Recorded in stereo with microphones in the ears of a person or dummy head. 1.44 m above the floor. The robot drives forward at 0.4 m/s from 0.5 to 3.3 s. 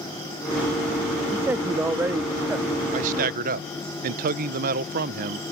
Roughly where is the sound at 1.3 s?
Centre.